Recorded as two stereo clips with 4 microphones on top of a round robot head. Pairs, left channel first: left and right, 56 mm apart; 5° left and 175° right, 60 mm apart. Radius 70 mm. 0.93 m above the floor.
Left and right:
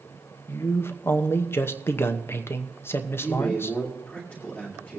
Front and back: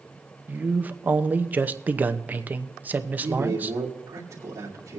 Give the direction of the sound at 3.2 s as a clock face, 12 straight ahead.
7 o'clock.